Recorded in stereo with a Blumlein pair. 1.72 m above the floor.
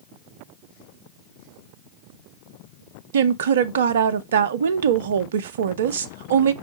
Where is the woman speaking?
60° right, 0.5 m.